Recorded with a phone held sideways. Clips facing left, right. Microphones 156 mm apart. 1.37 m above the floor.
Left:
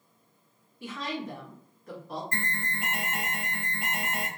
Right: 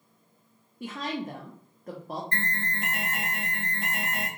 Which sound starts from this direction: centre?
An alarm, at 2.3 s.